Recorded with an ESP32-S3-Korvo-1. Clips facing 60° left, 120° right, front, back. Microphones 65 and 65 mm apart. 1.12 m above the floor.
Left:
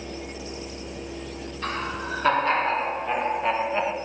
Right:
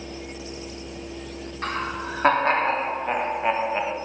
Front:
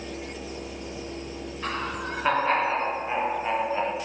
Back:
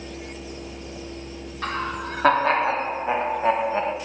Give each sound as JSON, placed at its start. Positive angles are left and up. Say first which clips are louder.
{"t": 1.6, "sound": "laughter", "louder": "right 1 dB, back 3 dB", "azimuth_deg": -165, "distance_m": 4.0}